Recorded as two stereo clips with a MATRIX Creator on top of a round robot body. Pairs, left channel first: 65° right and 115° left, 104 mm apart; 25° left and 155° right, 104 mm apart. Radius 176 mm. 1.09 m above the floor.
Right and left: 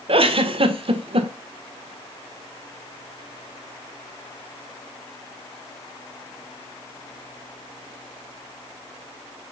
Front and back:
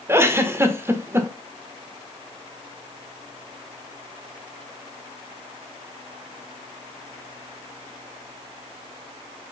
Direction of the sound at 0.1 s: 135° left.